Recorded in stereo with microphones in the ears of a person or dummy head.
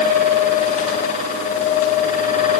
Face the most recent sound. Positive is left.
No sound to turn to.